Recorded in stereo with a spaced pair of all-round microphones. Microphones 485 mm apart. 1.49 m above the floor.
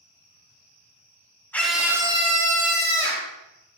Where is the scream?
5° left (ahead or behind), 3.5 m; by 3.3 s 30° right (ahead or behind), 4.5 m.